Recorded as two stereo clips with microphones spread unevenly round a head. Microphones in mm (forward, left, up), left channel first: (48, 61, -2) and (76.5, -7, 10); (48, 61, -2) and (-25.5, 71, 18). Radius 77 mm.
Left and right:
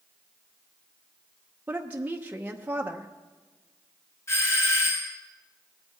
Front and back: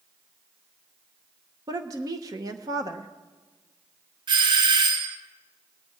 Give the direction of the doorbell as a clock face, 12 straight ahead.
7 o'clock.